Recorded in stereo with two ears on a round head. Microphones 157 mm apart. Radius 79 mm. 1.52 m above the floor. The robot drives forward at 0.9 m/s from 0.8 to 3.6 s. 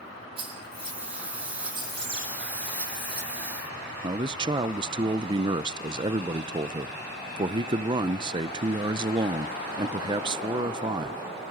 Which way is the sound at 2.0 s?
30° right (ahead or behind).